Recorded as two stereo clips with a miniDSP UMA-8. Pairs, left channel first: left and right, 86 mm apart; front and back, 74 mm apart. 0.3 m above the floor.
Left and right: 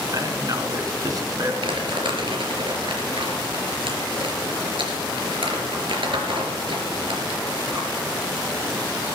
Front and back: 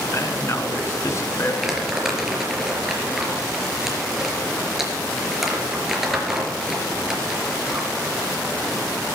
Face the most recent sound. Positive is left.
turn(degrees=-95)